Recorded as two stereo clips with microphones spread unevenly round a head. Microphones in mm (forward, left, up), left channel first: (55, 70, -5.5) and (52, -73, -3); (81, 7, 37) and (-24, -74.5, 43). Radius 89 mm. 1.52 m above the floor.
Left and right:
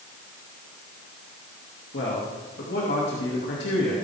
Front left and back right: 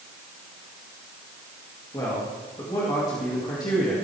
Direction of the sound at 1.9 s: 105° left.